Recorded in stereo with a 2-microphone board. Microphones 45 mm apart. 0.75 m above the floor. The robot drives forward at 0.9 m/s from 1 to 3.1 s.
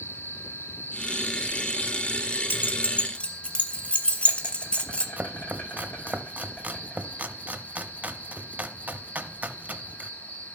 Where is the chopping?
35° right (ahead or behind), 0.6 m.